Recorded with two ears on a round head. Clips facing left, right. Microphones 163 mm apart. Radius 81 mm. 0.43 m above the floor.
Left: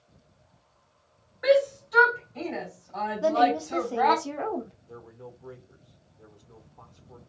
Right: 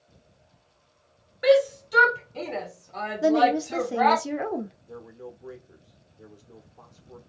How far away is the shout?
About 1.6 m.